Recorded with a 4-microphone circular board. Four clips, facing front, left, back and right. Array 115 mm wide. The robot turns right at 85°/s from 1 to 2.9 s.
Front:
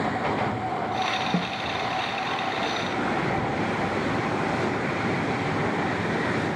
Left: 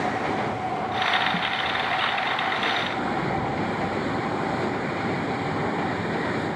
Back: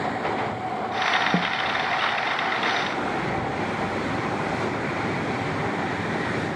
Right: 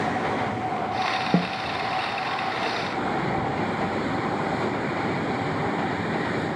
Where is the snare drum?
115° right; by 1.5 s 95° right.